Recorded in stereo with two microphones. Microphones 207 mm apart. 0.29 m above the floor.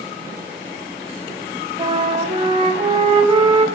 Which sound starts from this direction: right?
A flute, at 1.8 s.